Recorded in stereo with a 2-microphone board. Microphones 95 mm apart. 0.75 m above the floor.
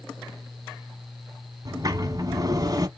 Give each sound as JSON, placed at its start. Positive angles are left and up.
{"t": 1.6, "sound": "a sliding door", "side_deg": -40, "distance_m": 0.8}